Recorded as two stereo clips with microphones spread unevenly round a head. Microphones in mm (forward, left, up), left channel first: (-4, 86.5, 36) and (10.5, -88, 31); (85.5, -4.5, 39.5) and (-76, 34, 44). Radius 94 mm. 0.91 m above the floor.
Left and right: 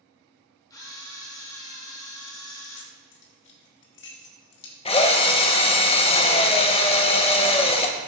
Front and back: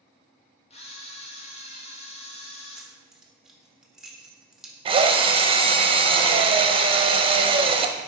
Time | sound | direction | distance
0.7 | a camera shutter | 25° left | 1.4 m
2.8 | keys jangling | 80° left | 1.3 m
4.8 | a drill | 130° left | 0.8 m